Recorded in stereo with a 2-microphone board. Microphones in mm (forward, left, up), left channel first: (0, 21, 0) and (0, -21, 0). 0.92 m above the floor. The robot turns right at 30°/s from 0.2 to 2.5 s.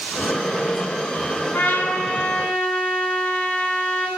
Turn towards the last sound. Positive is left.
turn(degrees=20)  # may be behind; listen again after turning